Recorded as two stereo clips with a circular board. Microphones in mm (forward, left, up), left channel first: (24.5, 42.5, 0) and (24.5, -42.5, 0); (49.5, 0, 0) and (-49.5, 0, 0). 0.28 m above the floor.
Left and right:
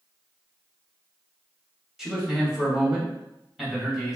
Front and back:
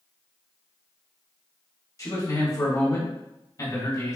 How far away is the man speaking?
About 1.6 m.